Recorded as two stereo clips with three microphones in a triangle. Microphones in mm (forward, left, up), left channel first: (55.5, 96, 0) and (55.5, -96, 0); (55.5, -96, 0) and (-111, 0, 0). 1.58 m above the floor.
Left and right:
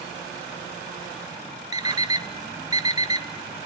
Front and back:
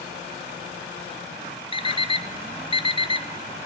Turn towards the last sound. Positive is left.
turn(degrees=-45)